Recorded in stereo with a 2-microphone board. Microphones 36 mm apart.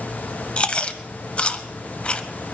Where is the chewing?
35° left (ahead or behind), 0.9 m.